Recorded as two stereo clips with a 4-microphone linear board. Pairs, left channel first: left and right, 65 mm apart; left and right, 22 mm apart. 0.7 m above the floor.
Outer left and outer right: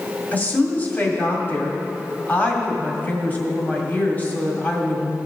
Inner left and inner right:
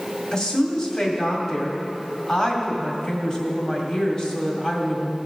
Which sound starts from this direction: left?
A woman speaking, at 0.3 s.